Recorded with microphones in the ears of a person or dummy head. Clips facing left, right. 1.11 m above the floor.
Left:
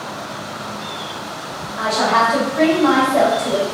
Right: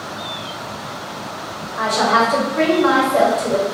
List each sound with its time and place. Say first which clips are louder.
1.8 s a woman speaking: right 1 dB; 35° right (ahead or behind), 0.9 m